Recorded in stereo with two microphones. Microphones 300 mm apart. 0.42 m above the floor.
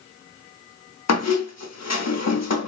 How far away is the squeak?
About 0.6 m.